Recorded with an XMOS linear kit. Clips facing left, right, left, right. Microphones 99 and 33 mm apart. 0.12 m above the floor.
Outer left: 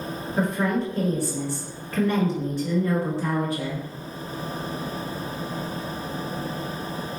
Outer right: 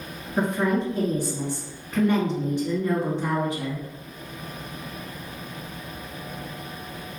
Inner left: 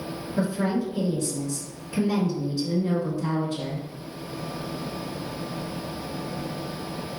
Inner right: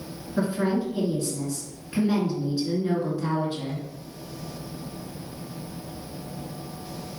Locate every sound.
0.4 s a woman speaking: 20° right (ahead or behind), 1.8 m